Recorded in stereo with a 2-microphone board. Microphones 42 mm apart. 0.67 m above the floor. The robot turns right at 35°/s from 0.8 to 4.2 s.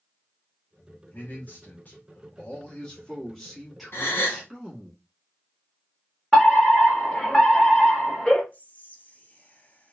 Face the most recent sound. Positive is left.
turn(degrees=35)  # may be behind; listen again after turning